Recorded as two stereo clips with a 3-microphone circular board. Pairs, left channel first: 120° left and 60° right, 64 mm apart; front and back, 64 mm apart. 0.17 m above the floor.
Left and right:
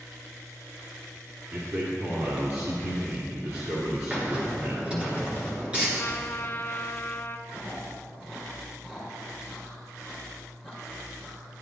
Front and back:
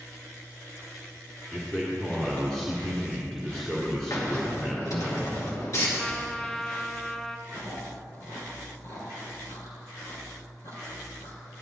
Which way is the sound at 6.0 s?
85° left.